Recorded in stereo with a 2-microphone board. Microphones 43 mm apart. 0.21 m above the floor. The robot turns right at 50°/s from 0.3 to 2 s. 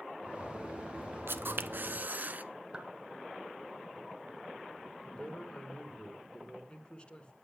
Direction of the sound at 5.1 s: 25° left (ahead or behind).